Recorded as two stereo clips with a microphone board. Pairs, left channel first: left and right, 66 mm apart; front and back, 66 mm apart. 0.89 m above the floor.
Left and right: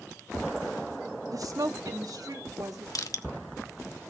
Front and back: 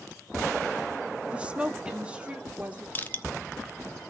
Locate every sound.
1.3 s a woman speaking: 110° right, 1.3 m
3.0 s crushing: 60° left, 1.1 m